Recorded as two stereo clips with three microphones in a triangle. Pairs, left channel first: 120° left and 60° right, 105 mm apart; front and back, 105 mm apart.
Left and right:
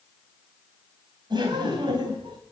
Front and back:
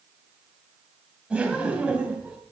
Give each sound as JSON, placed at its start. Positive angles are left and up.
{"t": 1.3, "sound": "laughter", "azimuth_deg": -100, "distance_m": 3.5}